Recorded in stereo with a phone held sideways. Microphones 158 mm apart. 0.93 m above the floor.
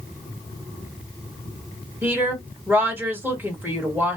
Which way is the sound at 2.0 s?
10° right (ahead or behind).